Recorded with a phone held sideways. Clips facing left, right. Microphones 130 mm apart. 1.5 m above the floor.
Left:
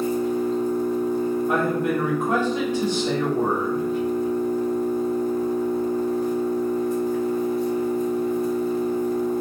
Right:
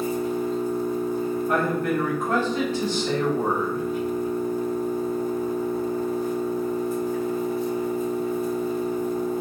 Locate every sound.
0.0 s an engine running: 5° right (ahead or behind), 1.6 m
1.5 s a man speaking: 15° left (ahead or behind), 1.7 m